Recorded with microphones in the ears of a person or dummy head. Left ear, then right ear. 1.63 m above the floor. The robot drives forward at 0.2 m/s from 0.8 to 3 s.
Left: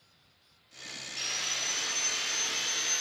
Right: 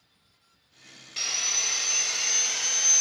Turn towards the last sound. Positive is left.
turn(degrees=-75)  # may be behind; listen again after turning